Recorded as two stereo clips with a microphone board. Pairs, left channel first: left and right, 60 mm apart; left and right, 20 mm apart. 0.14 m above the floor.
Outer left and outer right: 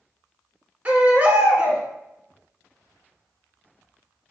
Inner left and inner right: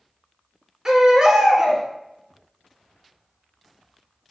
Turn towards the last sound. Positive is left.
turn(degrees=-20)  # may be behind; listen again after turning